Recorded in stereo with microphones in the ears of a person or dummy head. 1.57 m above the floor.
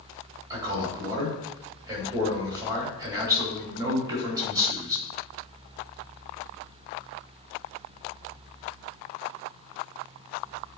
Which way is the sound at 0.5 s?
20° right (ahead or behind).